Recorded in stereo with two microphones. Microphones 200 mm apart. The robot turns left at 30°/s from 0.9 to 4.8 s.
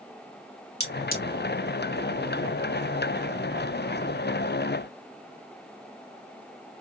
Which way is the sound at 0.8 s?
55° left (ahead or behind).